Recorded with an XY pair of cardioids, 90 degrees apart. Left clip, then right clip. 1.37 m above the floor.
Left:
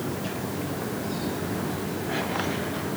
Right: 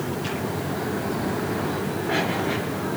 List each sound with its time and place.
Only background noise.